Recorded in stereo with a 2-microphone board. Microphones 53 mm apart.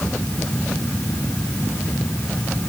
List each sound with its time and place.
Only background noise.